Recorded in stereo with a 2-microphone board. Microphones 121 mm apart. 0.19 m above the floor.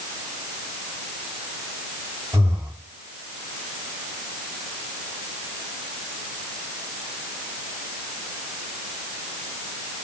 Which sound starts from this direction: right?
Breathing, at 2.3 s.